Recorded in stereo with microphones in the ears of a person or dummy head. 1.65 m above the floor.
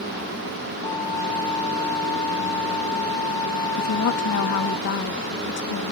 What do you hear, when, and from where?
0.8 s a flute: 15° left (ahead or behind)
3.8 s a woman speaking: 70° left (ahead or behind)